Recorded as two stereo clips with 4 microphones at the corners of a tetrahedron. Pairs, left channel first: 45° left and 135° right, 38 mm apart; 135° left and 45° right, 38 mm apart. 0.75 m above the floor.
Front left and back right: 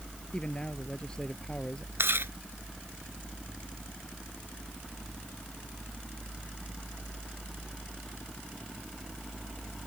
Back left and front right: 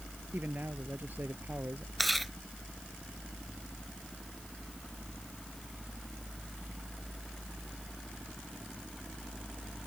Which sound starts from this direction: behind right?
Chewing, at 2.0 s.